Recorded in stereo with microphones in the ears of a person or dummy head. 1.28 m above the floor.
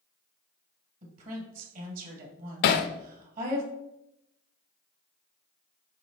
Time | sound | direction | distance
1.0 | a woman speaking | 45° right (ahead or behind) | 2.5 m
2.6 | hammering | 60° left (ahead or behind) | 0.8 m